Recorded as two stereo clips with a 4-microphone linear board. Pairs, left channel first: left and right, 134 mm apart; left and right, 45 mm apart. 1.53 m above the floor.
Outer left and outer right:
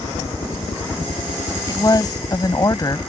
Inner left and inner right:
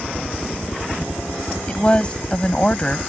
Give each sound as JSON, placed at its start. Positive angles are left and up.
{"t": 0.0, "sound": "a helicopter", "side_deg": 65}
{"t": 1.7, "sound": "a woman speaking", "side_deg": 30}